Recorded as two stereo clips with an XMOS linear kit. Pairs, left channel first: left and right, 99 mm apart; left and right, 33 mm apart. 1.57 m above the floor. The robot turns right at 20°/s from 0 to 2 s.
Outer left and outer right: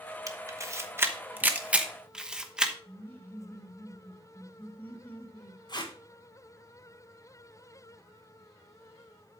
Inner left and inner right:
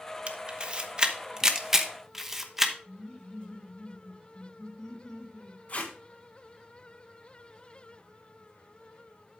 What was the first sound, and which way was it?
A camera shutter, 35° right (ahead or behind).